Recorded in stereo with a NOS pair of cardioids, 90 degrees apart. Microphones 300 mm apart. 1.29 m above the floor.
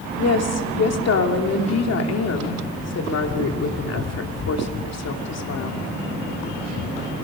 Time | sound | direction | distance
0.2 | a woman speaking | 55° left | 2.5 m